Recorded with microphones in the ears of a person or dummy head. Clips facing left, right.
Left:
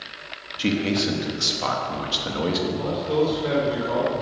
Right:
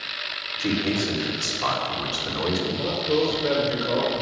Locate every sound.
0.6 s a man speaking: 50° left (ahead or behind), 3 m
2.7 s a man speaking: 10° right (ahead or behind), 5 m